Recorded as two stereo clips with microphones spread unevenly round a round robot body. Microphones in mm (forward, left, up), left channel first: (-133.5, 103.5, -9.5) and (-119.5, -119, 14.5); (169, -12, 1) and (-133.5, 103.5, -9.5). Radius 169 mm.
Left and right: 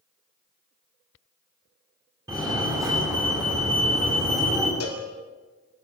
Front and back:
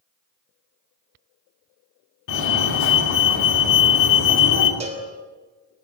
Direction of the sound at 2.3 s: 5° right.